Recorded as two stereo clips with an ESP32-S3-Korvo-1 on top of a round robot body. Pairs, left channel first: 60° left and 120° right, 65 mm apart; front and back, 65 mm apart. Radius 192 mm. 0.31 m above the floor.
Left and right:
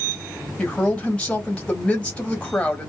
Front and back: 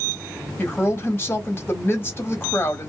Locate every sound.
0.6 s a woman speaking: straight ahead, 1.4 m